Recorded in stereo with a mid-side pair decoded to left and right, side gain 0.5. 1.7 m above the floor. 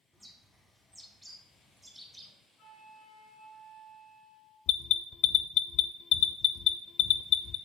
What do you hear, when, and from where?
0.1 s a bird: 10° right, 3.5 m
2.6 s a flute: 55° left, 2.5 m
4.7 s an alarm: 65° left, 0.7 m